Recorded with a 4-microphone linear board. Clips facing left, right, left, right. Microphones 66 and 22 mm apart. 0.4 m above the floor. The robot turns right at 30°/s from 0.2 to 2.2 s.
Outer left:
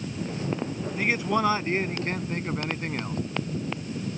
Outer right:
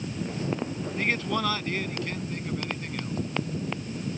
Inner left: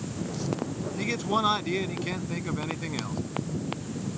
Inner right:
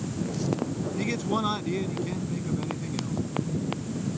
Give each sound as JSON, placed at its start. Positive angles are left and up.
{"t": 1.0, "sound": "a man speaking", "azimuth_deg": 5}